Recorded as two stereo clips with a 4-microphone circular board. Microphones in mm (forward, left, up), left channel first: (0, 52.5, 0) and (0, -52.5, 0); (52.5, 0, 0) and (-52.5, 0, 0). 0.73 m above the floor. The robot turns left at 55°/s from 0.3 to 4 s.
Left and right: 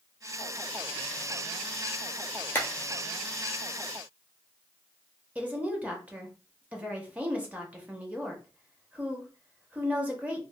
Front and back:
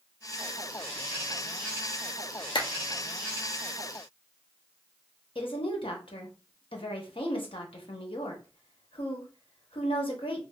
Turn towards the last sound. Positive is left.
turn(degrees=-15)